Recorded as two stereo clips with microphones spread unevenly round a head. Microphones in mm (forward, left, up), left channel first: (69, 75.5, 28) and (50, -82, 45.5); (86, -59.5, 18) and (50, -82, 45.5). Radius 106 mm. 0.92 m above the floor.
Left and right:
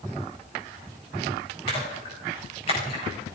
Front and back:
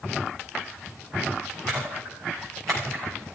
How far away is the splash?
About 4 m.